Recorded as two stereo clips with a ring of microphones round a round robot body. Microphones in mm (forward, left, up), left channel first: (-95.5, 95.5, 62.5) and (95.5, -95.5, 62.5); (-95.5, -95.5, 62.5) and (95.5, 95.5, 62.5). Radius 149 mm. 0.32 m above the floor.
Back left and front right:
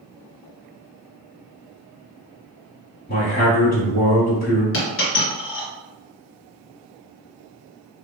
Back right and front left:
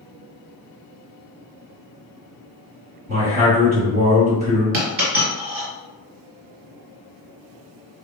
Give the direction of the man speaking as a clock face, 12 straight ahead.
9 o'clock.